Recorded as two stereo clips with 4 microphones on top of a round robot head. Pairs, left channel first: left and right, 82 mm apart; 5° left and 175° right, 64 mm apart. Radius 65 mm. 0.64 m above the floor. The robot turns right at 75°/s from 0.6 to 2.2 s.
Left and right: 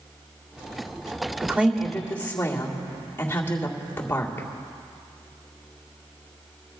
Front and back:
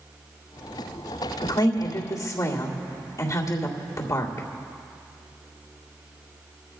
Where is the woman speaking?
35° right, 2 m; by 4.5 s 25° left, 2 m.